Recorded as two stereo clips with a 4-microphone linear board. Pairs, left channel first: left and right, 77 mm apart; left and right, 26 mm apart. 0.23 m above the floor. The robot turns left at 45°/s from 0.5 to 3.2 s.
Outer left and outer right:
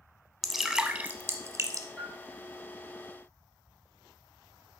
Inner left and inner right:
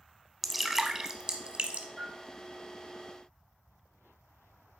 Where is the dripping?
5° right (ahead or behind), 0.7 m; by 1.9 s 45° right (ahead or behind), 0.7 m.